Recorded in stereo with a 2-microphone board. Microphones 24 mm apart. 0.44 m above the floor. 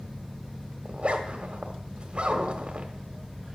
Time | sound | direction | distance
0.8 | a zipper | 45° right (ahead or behind) | 1.2 m